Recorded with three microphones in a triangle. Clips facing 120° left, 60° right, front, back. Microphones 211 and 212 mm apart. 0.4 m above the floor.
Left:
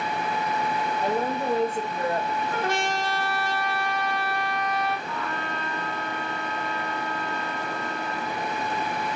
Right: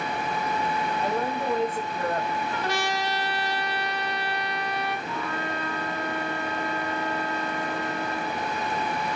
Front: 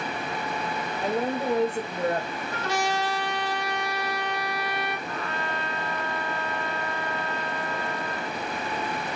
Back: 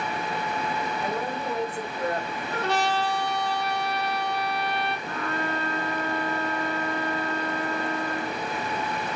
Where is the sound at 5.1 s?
140° right, 1.5 m.